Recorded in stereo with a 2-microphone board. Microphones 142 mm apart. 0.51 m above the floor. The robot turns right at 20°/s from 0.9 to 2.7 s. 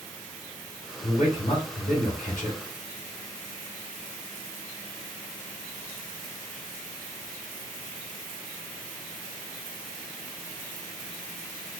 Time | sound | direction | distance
1.0 | a man speaking | 65° left | 2.5 m